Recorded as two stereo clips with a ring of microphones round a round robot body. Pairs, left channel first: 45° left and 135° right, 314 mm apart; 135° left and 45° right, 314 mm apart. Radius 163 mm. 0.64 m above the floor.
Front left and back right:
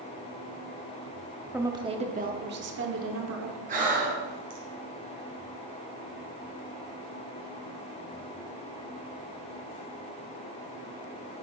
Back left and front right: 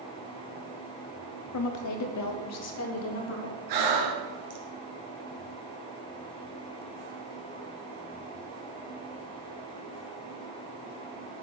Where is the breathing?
70° right, 2 m.